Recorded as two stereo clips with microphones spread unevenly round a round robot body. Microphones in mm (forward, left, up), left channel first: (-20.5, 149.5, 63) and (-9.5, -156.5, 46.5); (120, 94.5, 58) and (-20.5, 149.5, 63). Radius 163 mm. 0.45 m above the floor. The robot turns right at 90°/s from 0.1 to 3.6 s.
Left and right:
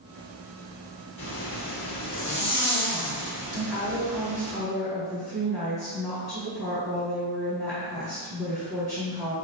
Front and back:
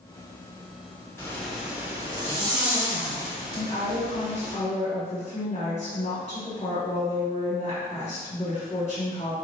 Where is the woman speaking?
5° left, 1.6 m; by 9.3 s 15° left, 1.6 m.